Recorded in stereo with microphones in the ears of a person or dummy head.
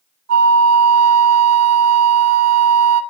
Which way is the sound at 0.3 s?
80° right.